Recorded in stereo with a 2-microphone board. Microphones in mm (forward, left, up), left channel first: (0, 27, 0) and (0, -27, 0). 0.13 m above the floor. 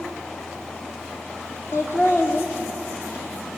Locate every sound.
1.7 s laughter: 55° left (ahead or behind), 5.5 m